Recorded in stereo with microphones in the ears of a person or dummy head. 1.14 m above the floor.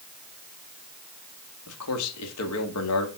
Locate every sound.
1.7 s a man speaking: 80° left, 1.7 m